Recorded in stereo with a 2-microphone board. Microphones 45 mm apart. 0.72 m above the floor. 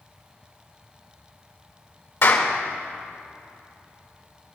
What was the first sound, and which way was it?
A clap, 70° left (ahead or behind).